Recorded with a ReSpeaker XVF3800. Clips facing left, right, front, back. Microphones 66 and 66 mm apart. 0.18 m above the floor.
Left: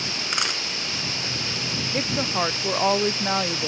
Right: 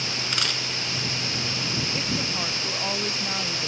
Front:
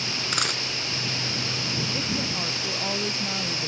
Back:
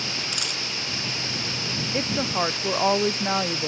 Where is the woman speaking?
145° left.